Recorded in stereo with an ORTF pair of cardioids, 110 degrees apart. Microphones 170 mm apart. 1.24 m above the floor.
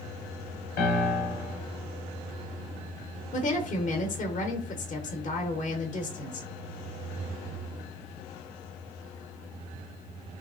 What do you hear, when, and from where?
0.8 s a piano: 70° left, 0.9 m
3.3 s a woman speaking: 45° left, 0.7 m